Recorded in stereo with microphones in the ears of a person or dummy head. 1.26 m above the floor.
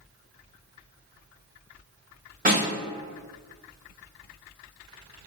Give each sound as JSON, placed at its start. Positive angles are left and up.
{"t": 2.5, "sound": "a snare drum", "side_deg": -40, "distance_m": 1.8}